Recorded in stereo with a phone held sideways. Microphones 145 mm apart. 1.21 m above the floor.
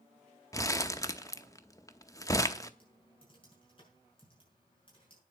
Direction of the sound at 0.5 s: 20° left (ahead or behind).